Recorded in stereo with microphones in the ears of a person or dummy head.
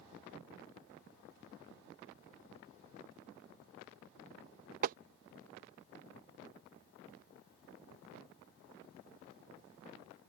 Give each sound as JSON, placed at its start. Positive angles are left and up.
{"t": 4.8, "sound": "tapping", "side_deg": -50}